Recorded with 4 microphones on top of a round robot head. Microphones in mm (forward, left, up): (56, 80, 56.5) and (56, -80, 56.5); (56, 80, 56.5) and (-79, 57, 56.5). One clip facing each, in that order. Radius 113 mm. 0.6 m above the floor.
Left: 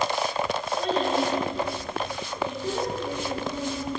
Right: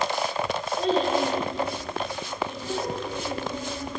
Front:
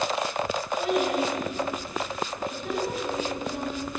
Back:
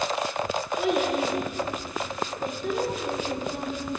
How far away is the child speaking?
About 1.9 m.